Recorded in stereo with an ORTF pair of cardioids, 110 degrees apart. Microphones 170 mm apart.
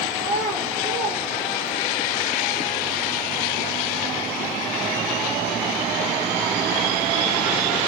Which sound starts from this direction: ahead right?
A child speaking, at 0.2 s.